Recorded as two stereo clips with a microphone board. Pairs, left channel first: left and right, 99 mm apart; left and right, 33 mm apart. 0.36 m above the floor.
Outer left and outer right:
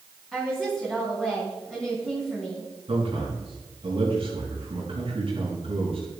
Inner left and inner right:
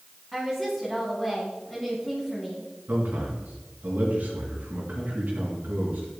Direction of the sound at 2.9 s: 70° right (ahead or behind).